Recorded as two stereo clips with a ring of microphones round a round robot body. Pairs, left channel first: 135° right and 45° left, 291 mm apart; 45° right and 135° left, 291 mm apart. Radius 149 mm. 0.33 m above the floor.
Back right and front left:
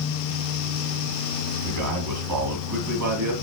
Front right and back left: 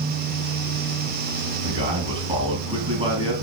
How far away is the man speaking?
About 2.5 m.